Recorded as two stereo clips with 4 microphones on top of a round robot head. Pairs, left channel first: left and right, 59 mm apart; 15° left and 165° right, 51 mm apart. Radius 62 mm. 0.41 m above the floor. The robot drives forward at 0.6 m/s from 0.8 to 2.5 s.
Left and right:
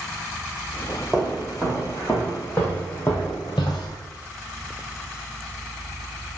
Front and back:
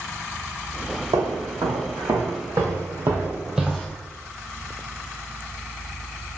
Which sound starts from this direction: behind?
Footsteps, at 1.1 s.